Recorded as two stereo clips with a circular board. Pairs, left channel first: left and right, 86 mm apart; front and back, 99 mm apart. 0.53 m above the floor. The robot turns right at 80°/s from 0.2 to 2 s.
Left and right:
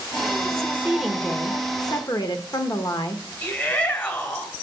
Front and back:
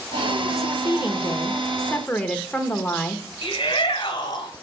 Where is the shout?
35° left, 2 m.